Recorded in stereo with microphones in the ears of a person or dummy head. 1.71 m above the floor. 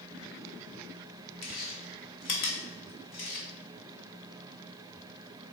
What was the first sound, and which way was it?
Chewing, 35° left (ahead or behind).